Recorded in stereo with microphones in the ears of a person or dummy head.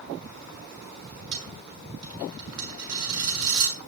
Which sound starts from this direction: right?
A dropped coin, at 1.3 s.